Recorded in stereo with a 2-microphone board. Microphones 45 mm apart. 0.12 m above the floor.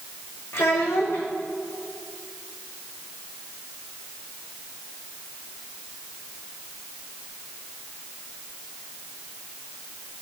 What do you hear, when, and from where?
0.5 s a child speaking: 80° left, 4.5 m